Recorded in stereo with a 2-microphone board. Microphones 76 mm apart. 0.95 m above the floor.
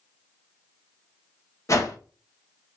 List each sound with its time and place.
1.7 s a whoosh: 45° left (ahead or behind), 0.5 m